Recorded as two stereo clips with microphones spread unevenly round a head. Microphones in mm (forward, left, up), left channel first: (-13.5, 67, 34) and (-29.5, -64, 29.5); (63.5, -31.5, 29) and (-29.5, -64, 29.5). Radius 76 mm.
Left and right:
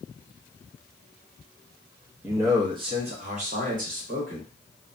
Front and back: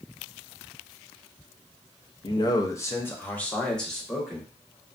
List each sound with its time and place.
2.2 s a man speaking: 20° right, 0.7 m; by 4.5 s 70° right, 1.6 m